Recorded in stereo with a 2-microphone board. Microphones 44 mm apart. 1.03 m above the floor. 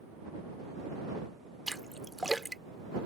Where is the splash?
5° left (ahead or behind).